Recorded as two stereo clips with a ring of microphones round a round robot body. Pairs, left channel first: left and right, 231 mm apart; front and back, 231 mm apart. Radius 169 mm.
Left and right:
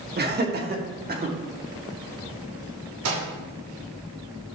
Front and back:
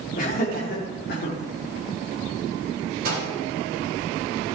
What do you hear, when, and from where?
0.2 s laughter: 55° right, 1.8 m; by 1.4 s 45° right, 2.5 m
3.0 s a microwave: 120° right, 2 m